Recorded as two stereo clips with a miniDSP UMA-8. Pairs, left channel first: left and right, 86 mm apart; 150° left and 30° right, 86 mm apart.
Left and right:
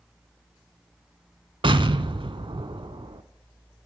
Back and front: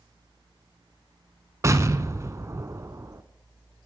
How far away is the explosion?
About 0.6 m.